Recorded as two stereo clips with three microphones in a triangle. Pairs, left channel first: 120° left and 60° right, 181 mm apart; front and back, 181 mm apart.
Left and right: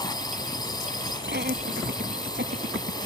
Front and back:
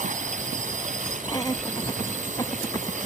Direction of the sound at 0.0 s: 175° left.